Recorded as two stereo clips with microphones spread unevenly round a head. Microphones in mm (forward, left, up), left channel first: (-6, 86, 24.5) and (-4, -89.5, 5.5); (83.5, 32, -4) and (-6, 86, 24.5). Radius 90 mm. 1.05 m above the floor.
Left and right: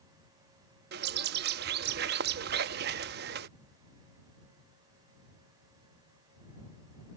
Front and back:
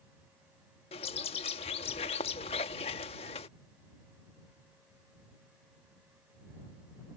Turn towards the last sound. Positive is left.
turn(degrees=-80)